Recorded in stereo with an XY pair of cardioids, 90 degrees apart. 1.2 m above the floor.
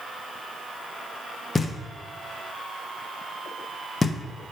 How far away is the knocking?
About 0.8 m.